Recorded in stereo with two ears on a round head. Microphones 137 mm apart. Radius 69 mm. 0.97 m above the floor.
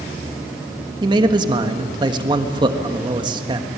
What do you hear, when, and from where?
1.0 s a man speaking: 30° right (ahead or behind), 1.4 m